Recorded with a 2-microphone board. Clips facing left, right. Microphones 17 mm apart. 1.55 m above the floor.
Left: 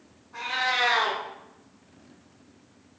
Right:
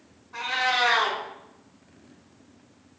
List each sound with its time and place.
0.3 s a cat meowing: 30° right (ahead or behind), 1.3 m